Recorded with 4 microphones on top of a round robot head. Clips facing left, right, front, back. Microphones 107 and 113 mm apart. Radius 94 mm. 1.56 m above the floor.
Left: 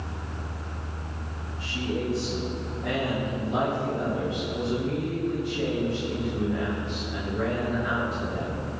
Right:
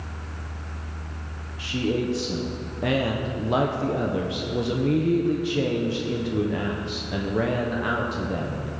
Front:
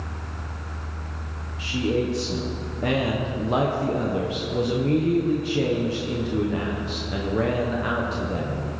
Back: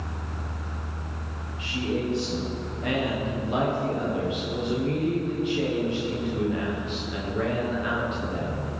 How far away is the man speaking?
About 1.2 m.